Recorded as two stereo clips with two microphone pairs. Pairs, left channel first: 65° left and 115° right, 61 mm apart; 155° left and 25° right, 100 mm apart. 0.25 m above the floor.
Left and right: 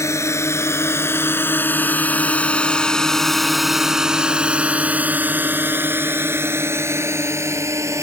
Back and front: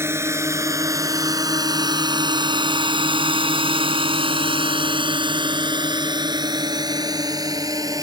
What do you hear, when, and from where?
0.0 s a drone: 35° left; by 8.0 s 80° right